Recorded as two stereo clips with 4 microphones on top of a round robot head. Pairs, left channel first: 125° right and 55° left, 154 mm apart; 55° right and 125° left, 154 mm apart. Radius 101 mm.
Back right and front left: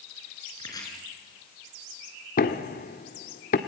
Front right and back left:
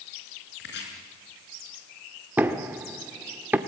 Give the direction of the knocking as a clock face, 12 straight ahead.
5 o'clock.